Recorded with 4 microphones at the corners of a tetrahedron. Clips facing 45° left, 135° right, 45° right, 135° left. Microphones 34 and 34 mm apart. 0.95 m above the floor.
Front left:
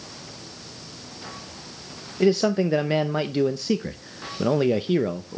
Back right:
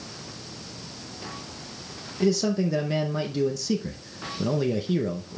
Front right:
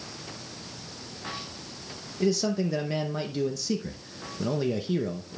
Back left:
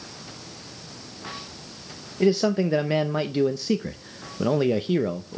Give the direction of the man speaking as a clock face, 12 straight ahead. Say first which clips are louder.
Front left 4 dB, back left 5 dB; 9 o'clock.